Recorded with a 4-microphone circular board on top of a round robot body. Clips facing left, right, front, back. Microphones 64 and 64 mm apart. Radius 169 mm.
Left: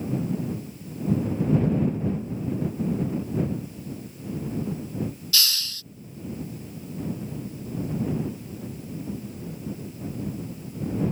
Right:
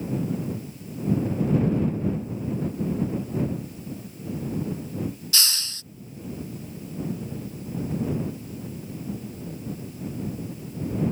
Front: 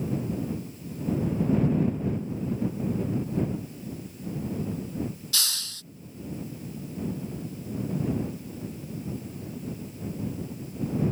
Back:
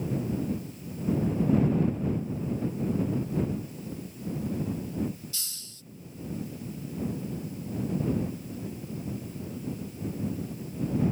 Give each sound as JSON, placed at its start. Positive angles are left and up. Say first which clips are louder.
{"t": 5.3, "sound": "a hiss", "louder": "left 1 dB, front 12 dB", "azimuth_deg": -25}